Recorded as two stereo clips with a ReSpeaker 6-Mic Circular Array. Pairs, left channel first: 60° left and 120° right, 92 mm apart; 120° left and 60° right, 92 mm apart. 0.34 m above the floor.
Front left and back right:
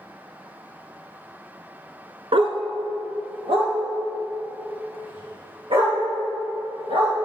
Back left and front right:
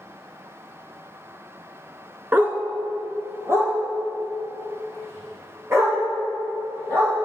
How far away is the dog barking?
About 0.9 m.